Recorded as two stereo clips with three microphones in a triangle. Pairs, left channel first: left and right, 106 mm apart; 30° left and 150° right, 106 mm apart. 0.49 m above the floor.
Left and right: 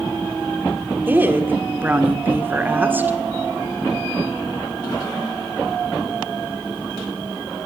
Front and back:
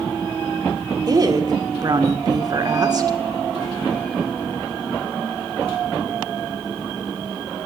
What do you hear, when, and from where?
1.1 s a woman speaking: 150° right, 1.3 m